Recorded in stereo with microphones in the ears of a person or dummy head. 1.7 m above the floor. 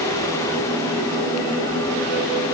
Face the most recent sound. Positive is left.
No sound to turn to.